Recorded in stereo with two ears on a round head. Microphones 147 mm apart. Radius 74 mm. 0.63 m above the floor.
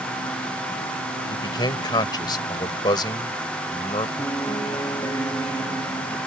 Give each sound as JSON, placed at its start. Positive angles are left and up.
{"t": 1.3, "sound": "a man speaking", "side_deg": 30}
{"t": 4.2, "sound": "a piano", "side_deg": 20}